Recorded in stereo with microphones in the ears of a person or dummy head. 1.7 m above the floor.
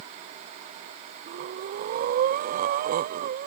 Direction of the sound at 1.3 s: 45° right (ahead or behind).